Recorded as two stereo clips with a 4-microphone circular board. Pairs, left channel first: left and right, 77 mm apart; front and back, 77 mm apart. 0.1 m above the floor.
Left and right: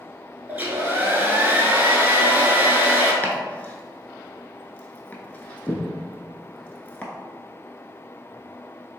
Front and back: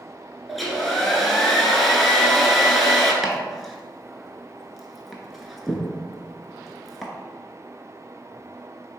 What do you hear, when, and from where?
0.5 s a hair dryer: 90° right, 0.7 m
3.2 s chopping: 90° left, 0.6 m